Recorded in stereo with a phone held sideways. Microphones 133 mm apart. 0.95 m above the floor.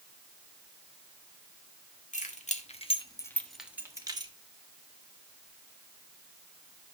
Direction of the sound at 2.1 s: 70° left (ahead or behind).